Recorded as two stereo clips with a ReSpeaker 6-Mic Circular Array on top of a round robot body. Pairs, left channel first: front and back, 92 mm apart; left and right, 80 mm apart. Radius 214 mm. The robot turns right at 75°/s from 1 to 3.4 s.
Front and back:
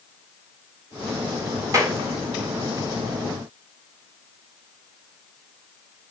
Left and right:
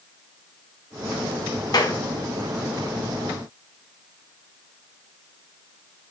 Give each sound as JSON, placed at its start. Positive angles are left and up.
{"t": 1.7, "sound": "a clap", "azimuth_deg": 125, "distance_m": 2.0}